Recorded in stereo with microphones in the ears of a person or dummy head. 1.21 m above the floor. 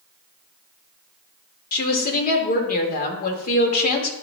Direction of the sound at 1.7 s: 55° left (ahead or behind).